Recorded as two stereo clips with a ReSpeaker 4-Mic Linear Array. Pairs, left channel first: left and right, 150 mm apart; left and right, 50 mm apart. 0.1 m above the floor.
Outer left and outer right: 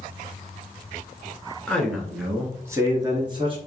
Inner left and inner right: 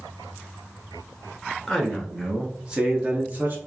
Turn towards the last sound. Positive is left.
turn(degrees=-35)  # may be behind; listen again after turning